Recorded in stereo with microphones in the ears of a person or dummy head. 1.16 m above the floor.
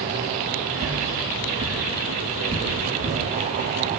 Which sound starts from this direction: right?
Footsteps, at 0.8 s.